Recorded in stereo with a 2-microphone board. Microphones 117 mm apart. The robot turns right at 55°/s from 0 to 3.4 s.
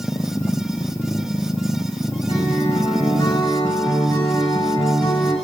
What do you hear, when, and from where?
2.3 s a guitar: 80° left, 6.5 m; by 5.3 s 140° left, 6.5 m